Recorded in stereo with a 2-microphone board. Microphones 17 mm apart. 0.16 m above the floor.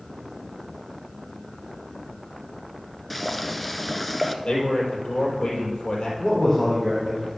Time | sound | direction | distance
3.1 | boiling | 5° left (ahead or behind) | 0.9 m
4.5 | a man speaking | 65° left (ahead or behind) | 4.5 m
6.2 | a man speaking | 35° left (ahead or behind) | 3.5 m